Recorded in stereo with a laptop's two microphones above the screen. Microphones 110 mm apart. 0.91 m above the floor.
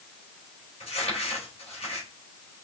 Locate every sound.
0.8 s crumpling: 70° left (ahead or behind), 3 m